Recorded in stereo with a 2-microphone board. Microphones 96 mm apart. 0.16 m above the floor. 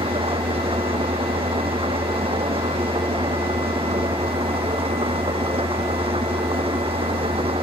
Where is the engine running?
80° right.